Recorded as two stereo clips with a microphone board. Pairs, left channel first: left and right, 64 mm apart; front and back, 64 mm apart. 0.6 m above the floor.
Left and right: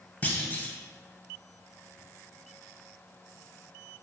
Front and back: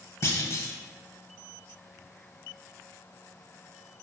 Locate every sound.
0.2 s a clunk: 35° left, 0.6 m